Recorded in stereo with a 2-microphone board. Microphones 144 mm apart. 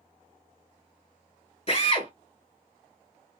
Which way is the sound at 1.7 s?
40° left (ahead or behind).